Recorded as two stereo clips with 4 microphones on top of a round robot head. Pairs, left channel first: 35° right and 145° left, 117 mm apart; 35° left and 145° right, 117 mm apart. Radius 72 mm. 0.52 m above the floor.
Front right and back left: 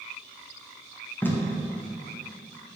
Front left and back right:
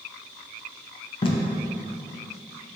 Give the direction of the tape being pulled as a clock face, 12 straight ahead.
11 o'clock.